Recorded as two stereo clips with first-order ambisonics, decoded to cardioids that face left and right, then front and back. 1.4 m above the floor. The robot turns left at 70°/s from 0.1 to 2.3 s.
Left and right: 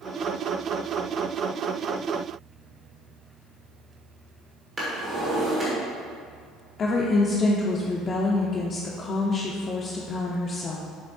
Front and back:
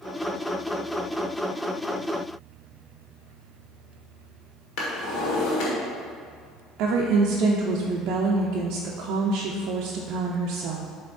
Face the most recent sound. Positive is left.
turn(degrees=150)